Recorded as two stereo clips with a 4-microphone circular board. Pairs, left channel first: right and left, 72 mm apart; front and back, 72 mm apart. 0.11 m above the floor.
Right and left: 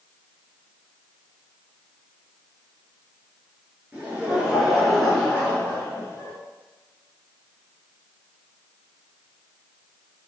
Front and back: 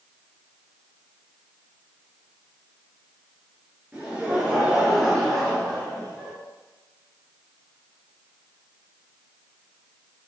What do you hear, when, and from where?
3.9 s laughter: 130° left, 1.3 m; by 6.3 s 65° right, 1.5 m